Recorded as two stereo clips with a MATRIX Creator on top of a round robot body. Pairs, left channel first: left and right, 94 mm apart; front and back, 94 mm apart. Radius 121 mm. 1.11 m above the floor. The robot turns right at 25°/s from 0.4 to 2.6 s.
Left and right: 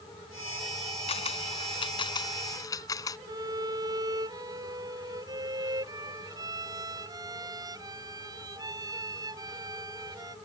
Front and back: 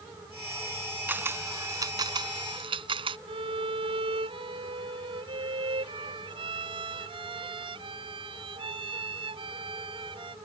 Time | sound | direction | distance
1.1 | a camera shutter | 110° left | ?
3.3 | a violin | 145° right | ?